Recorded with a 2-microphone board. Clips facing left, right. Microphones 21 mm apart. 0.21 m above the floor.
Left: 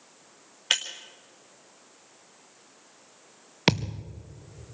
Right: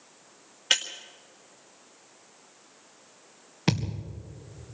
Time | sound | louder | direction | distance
0.7 | breaking glass | right 1 dB | 5° left (ahead or behind) | 1.7 m
3.7 | a thud | left 4 dB | 50° left (ahead or behind) | 2.5 m